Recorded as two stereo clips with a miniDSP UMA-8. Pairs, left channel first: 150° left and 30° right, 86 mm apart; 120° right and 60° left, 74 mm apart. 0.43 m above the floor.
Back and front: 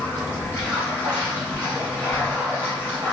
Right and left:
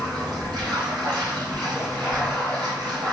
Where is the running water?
85° left, 2.5 m.